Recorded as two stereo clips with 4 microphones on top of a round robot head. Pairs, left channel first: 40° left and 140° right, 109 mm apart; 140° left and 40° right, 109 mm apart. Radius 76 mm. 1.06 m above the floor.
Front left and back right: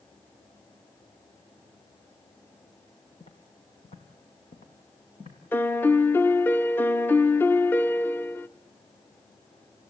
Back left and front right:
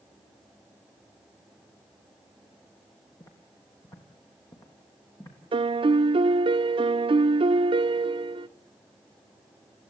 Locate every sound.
3.2 s footsteps: 80° left, 2.5 m; by 5.4 s 75° left, 4 m
5.5 s a piano: 30° right, 0.7 m